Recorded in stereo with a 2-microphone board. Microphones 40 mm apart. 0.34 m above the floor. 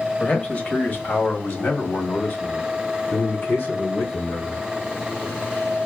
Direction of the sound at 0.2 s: 35° left (ahead or behind).